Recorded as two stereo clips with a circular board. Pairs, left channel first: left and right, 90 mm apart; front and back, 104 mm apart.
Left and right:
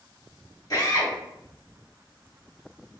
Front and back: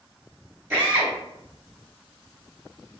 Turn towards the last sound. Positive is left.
turn(degrees=120)